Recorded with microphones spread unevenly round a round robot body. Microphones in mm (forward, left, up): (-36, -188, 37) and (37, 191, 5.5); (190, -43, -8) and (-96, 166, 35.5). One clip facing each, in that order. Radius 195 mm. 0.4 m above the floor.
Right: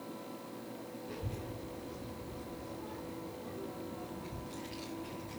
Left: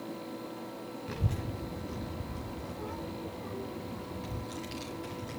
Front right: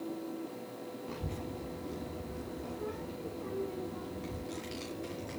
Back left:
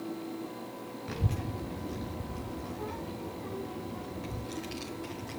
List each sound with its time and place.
1.1 s a child speaking: 90° left, 1.6 m; by 5.4 s 55° left, 3.5 m